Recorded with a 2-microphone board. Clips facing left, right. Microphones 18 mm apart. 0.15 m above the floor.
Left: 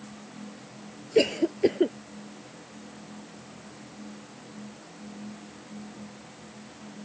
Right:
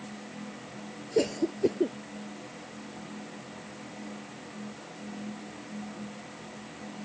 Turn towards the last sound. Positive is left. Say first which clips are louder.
# left 4 dB
turn(degrees=55)  # may be behind; listen again after turning